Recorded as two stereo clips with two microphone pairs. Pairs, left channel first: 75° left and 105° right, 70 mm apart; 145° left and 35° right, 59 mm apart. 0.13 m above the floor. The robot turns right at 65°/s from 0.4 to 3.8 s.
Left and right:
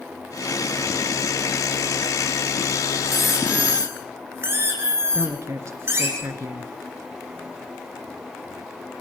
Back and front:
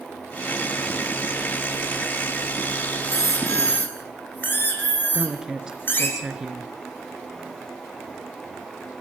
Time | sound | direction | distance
3.0 | a squeak | 150° left | 4.5 m
5.1 | a woman speaking | 105° right | 2.5 m